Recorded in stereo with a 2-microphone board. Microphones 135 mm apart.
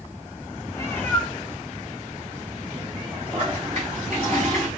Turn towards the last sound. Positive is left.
turn(degrees=-45)  # may be behind; listen again after turning